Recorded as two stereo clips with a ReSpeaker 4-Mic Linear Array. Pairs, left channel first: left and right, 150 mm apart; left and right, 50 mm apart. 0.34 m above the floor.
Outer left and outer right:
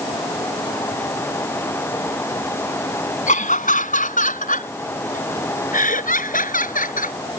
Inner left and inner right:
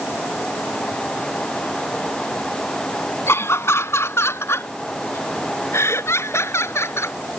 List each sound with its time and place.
3.3 s laughter: 70° left (ahead or behind); by 7.2 s 75° left (ahead or behind)